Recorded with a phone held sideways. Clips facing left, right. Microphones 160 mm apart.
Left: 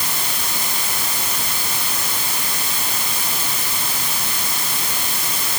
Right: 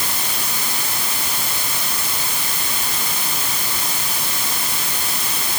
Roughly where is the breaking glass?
I don't hear breaking glass.